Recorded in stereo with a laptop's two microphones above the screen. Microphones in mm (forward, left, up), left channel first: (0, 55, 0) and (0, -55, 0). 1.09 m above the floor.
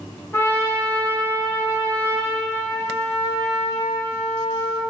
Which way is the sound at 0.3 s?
25° left (ahead or behind).